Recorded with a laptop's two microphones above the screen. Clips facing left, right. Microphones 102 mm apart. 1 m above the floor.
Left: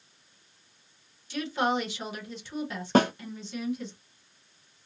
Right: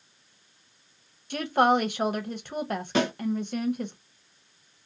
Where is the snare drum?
45° left (ahead or behind), 0.6 m.